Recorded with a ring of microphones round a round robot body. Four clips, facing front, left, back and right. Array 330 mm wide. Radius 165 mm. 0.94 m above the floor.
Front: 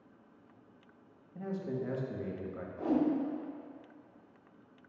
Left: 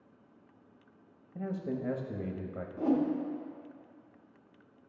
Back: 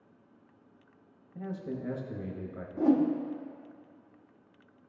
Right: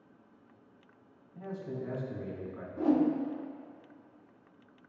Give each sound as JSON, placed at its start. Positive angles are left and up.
{"t": 1.4, "sound": "a man speaking", "azimuth_deg": 100, "distance_m": 0.9}
{"t": 2.8, "sound": "a whoosh", "azimuth_deg": -170, "distance_m": 0.9}